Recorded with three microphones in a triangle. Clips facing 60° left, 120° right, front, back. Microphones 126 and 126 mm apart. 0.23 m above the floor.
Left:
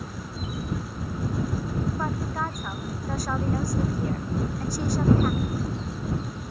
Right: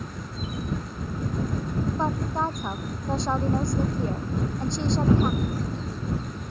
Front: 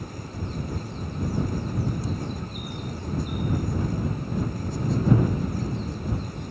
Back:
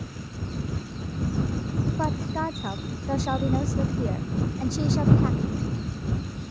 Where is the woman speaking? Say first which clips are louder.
Right 3 dB, back 5 dB; 175° left.